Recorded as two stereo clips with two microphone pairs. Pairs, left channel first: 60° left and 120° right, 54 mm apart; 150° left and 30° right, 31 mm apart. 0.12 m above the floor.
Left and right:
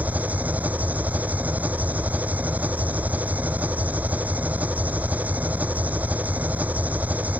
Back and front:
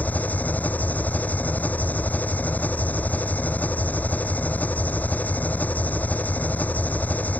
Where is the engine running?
Straight behind.